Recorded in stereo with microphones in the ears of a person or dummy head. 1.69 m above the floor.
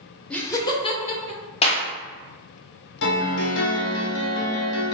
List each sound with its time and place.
0.3 s laughter: 5° left (ahead or behind), 0.7 m; by 1.4 s 40° left (ahead or behind), 1.4 m
1.6 s a clap: 35° left (ahead or behind), 0.7 m
3.0 s a piano: 65° left (ahead or behind), 0.6 m